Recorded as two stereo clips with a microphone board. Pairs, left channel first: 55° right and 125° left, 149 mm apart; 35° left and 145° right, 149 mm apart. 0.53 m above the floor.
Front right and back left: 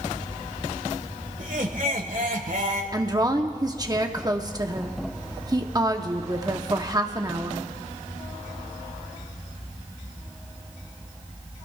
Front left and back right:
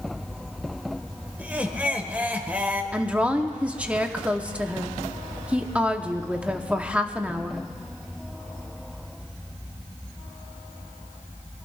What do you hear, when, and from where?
1.4 s laughter: 135° left, 1.7 m
2.9 s a woman speaking: 145° left, 1.0 m